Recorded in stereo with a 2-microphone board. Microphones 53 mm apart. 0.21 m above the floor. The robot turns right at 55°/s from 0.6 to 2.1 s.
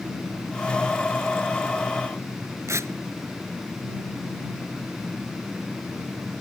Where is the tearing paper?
65° right (ahead or behind).